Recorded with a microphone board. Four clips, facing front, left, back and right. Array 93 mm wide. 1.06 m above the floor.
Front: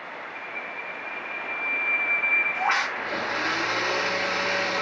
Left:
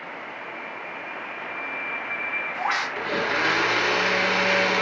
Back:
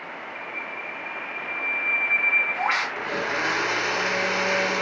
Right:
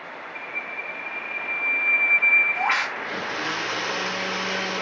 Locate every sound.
0.3 s a bird: 125° right, 2 m
3.0 s a blender: 105° left, 0.7 m